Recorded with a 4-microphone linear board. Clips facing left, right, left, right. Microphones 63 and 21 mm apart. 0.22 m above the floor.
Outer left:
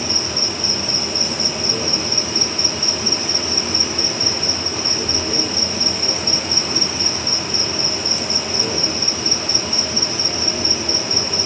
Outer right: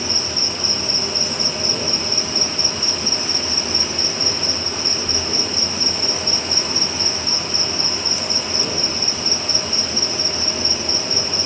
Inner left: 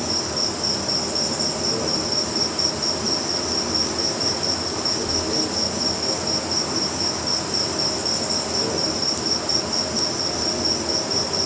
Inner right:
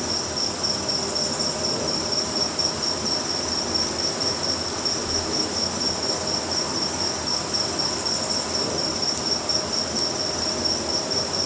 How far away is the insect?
About 5.5 m.